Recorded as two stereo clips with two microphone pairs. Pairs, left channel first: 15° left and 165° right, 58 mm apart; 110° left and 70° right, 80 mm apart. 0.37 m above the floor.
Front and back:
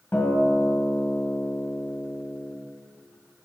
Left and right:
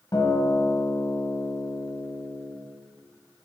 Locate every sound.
0.1 s a guitar: 75° left, 1.7 m